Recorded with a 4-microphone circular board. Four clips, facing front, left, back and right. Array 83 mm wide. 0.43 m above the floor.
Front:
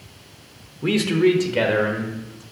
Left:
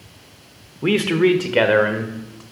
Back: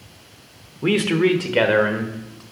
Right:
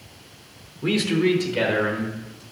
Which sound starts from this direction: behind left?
A man speaking, at 0.8 s.